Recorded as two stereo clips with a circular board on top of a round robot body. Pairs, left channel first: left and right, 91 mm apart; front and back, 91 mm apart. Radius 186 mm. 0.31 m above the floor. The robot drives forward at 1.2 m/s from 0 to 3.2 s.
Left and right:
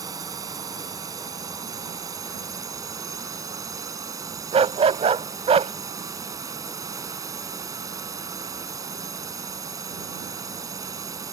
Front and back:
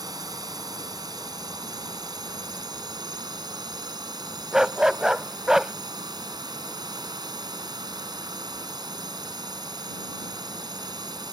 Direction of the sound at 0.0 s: 135° right.